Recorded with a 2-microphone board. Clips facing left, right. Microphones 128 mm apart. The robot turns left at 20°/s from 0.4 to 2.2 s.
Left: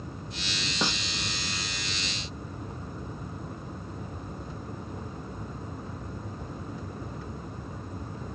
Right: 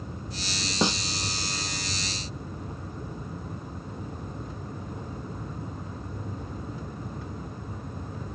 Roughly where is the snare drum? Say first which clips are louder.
Right 5 dB; centre.